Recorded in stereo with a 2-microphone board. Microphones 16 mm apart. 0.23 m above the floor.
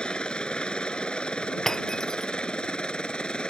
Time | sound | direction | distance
0.0 | a helicopter | 65° left (ahead or behind) | ?
1.7 | breaking glass | 25° left (ahead or behind) | ?